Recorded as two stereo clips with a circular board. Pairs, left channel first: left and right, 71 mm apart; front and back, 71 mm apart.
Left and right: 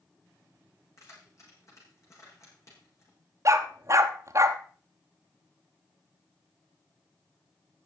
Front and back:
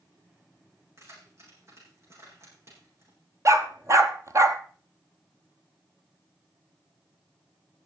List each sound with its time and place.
1.0 s keys jangling: 130° left, 5.5 m
3.5 s a dog barking: 135° right, 0.9 m